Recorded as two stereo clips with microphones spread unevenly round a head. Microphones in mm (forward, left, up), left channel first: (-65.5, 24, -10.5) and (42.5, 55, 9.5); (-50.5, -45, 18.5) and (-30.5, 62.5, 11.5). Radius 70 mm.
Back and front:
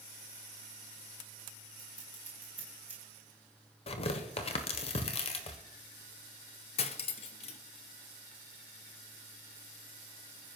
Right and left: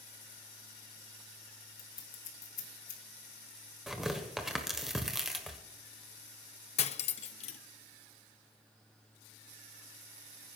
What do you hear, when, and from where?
1.8 s scissors: 65° right, 2 m
3.9 s tearing paper: 165° left, 1.5 m
6.8 s cutlery clinking: 115° right, 0.6 m